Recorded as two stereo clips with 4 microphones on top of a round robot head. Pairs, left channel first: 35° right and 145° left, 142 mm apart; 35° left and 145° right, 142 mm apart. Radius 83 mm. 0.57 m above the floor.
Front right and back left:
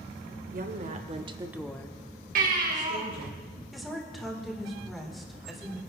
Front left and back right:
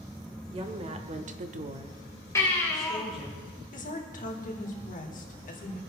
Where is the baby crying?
110° left, 3 m.